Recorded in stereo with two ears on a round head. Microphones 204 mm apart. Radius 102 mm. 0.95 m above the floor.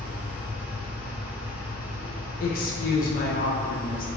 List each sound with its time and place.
0.0 s an engine running: 10° right (ahead or behind), 0.7 m
2.4 s a woman speaking: 40° left (ahead or behind), 0.5 m